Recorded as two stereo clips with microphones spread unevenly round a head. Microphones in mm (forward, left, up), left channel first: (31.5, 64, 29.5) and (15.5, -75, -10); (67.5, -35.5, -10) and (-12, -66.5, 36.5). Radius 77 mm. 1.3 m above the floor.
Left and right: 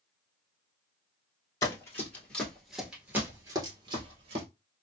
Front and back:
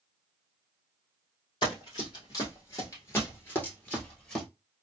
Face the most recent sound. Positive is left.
turn(degrees=-110)